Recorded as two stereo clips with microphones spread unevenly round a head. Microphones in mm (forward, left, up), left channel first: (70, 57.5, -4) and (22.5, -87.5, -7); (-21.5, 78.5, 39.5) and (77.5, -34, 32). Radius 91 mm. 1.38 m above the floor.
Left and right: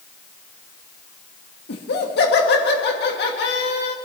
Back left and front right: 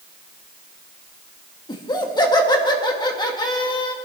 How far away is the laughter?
About 1.7 m.